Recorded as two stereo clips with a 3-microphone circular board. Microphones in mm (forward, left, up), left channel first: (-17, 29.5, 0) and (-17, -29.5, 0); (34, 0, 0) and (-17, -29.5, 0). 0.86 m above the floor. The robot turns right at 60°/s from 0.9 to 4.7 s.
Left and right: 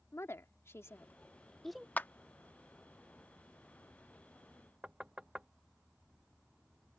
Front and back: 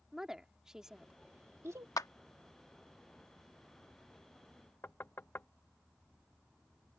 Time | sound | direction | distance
0.1 | a woman speaking | 130° left | ?
2.0 | a clap | 30° left | ?
4.8 | knocking | 20° right | ?